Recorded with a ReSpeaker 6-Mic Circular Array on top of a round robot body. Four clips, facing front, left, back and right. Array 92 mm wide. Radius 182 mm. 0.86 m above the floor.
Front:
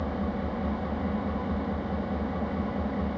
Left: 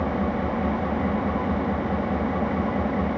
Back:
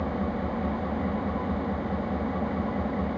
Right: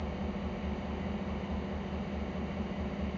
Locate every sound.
0.0 s an engine running: 100° left, 1.1 m